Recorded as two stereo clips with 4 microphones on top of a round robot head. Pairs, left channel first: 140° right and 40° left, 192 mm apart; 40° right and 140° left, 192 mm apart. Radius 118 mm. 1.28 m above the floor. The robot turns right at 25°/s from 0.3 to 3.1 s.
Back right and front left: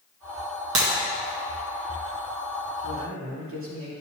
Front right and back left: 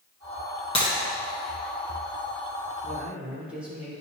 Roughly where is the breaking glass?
Ahead.